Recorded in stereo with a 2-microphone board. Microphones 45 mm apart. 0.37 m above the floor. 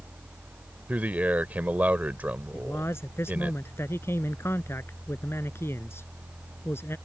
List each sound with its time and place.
0.9 s a man speaking: 40° right (ahead or behind)
2.5 s a man speaking: 80° left